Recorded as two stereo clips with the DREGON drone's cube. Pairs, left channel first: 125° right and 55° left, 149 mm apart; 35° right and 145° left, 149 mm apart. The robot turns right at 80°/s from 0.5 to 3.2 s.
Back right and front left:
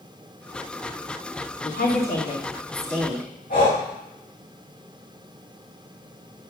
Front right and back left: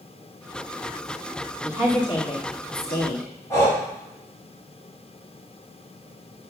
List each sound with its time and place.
1.6 s a woman speaking: 150° right, 4 m; by 3.3 s 25° right, 4 m
3.5 s breathing: 105° right, 5.5 m